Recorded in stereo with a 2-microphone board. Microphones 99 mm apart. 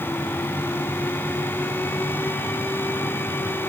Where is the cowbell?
No cowbell in this recording.